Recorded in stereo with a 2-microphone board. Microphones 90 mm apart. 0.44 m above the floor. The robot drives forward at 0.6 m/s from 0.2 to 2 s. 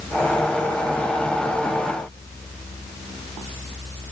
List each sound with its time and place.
Only background noise.